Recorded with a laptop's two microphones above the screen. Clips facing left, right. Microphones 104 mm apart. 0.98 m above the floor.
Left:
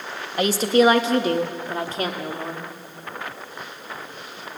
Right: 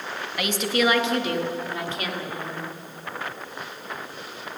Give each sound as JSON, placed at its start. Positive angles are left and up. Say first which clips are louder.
{"t": 0.4, "sound": "a woman speaking", "louder": "left 7 dB", "side_deg": 35, "distance_m": 1.1}